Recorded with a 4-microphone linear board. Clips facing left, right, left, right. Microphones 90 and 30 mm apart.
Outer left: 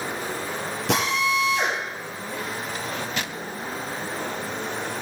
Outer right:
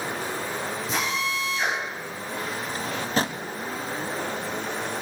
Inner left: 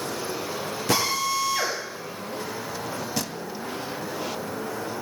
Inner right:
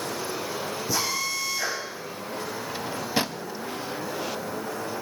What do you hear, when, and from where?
0.9 s a drill: 75° left (ahead or behind), 6 m
2.7 s a drawer: 35° right (ahead or behind), 0.6 m